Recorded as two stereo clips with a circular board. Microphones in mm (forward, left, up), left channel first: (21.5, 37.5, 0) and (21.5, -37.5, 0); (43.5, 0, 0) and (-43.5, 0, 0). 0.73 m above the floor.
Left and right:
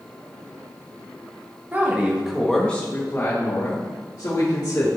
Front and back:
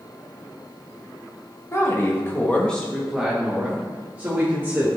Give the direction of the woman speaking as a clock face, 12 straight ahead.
1 o'clock.